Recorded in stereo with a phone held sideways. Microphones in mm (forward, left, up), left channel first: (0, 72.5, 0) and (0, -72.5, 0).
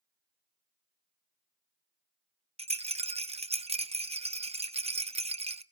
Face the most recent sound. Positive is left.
turn(degrees=-50)  # may be behind; listen again after turning